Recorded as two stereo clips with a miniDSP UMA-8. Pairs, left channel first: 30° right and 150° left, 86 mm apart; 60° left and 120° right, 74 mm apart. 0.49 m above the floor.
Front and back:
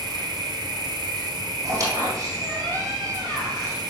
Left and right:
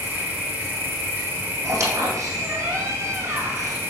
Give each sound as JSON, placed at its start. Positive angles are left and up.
{"t": 0.0, "sound": "an insect", "azimuth_deg": 175, "distance_m": 2.5}
{"t": 1.6, "sound": "a squeak", "azimuth_deg": -165, "distance_m": 3.5}